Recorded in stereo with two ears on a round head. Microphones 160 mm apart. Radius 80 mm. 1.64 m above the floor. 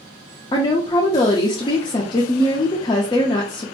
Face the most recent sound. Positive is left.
turn(degrees=25)  # may be behind; listen again after turning